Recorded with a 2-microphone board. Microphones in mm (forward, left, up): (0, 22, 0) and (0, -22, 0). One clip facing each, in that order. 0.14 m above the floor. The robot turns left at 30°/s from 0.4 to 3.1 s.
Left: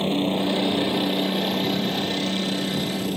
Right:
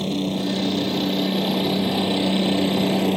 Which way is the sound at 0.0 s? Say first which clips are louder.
Left 1 dB; 25° left (ahead or behind).